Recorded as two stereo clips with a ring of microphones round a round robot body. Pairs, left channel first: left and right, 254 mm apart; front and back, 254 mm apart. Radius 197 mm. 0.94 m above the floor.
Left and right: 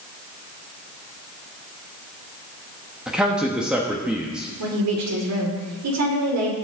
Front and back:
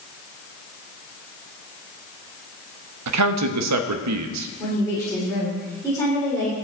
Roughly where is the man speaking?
Behind.